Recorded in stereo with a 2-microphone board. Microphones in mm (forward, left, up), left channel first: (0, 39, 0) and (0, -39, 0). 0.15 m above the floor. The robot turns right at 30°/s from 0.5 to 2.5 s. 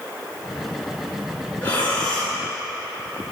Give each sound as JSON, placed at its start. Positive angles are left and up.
{"t": 1.6, "sound": "breathing", "side_deg": 20, "distance_m": 1.2}